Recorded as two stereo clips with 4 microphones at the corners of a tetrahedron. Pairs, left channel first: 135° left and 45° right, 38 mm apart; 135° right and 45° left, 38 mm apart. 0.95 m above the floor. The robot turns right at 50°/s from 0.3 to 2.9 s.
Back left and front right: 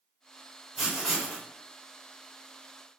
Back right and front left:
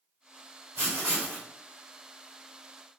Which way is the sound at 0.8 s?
40° left.